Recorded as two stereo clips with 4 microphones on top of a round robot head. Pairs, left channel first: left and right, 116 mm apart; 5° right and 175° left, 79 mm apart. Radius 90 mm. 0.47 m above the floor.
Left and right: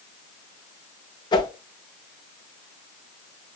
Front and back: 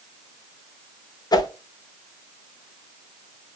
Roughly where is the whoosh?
Ahead left.